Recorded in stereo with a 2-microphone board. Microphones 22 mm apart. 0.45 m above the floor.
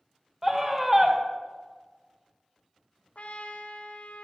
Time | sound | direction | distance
0.4 | a scream | 15° right (ahead or behind) | 1.6 m
3.1 | a trumpet | 85° left | 1.3 m